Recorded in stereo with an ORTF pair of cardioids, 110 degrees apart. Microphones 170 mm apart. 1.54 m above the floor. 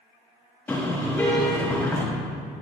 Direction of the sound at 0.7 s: 10° left.